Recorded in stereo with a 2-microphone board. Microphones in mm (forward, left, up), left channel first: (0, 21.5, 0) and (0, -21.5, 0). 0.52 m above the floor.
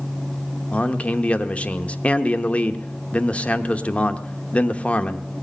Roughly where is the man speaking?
Left.